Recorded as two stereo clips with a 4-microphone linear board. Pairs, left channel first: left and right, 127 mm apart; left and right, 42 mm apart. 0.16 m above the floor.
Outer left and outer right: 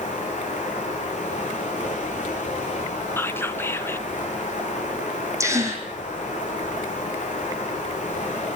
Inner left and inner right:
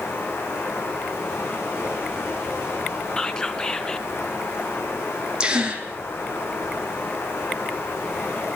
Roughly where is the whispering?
Centre.